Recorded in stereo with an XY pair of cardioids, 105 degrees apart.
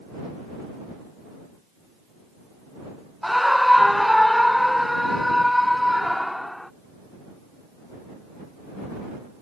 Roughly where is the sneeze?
I don't hear a sneeze.